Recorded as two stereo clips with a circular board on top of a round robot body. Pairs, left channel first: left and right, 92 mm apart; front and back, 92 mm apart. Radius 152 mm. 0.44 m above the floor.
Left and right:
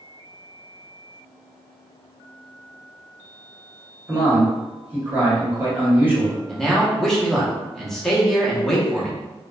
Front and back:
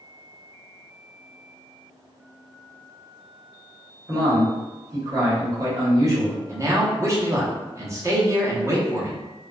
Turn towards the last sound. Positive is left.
turn(degrees=175)